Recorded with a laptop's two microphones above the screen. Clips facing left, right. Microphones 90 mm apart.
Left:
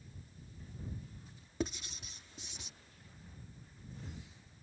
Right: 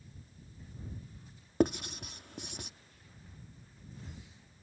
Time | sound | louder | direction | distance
1.6 | writing | right 10 dB | 55° right (ahead or behind) | ?